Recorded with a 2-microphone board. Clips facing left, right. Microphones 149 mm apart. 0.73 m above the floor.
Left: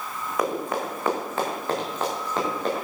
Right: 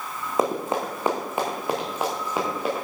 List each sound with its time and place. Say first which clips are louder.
0.4 s running footsteps: right 2 dB; 30° right (ahead or behind), 3.5 m; by 2.9 s 10° right (ahead or behind), 6 m